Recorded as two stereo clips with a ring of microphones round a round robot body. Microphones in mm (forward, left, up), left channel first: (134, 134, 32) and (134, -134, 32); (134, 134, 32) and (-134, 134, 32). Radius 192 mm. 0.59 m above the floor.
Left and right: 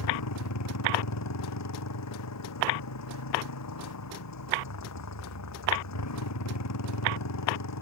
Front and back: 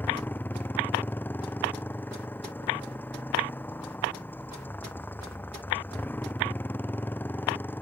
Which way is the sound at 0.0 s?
85° left.